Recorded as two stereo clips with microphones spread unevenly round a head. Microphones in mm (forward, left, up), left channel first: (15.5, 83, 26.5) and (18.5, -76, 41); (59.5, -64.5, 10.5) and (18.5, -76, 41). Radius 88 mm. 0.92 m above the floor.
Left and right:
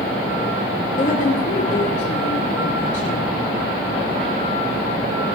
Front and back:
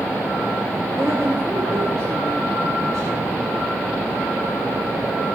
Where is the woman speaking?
135° left, 3.5 m.